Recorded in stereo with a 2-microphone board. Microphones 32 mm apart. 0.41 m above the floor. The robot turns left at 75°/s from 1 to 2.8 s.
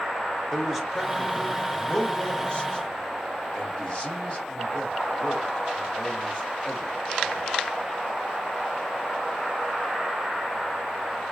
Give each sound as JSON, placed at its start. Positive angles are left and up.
{"t": 0.5, "sound": "a man speaking", "side_deg": -10, "distance_m": 1.6}